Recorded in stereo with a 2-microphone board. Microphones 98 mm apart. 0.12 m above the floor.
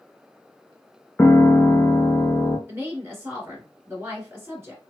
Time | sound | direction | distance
1.2 | a piano | 20° left (ahead or behind) | 0.6 m
2.7 | a woman speaking | 25° right (ahead or behind) | 1.6 m